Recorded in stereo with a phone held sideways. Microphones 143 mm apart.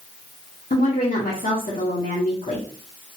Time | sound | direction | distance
0.7 | a woman speaking | 65° left (ahead or behind) | 0.8 m